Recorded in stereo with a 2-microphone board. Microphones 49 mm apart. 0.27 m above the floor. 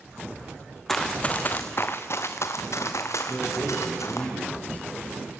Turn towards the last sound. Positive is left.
turn(degrees=30)  # may be behind; listen again after turning